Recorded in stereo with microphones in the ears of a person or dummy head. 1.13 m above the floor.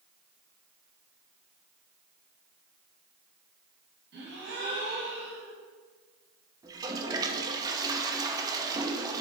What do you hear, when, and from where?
4.1 s a gasp: 65° right (ahead or behind), 1.9 m
6.6 s a toilet flushing: 20° right (ahead or behind), 0.7 m